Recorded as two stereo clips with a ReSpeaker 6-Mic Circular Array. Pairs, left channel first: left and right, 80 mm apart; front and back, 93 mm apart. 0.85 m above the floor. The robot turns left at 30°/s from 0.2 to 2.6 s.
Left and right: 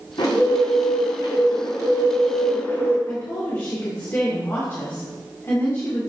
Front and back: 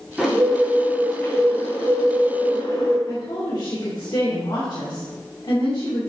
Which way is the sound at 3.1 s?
30° left.